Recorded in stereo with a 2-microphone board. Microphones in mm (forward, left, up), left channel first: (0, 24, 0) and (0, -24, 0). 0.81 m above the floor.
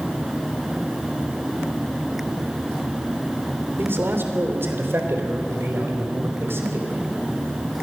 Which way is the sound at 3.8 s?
50° right (ahead or behind).